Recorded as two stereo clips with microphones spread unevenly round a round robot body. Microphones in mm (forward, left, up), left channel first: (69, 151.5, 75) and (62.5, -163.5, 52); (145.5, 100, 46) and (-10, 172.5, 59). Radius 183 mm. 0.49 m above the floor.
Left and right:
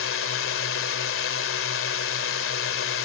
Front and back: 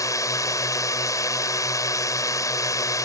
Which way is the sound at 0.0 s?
45° left.